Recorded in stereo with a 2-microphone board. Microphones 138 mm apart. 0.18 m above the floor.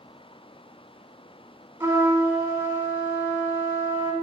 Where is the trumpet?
20° right (ahead or behind), 1.1 m.